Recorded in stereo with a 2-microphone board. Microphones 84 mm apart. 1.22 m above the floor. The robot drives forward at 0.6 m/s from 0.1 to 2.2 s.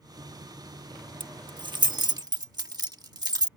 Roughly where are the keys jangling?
Right.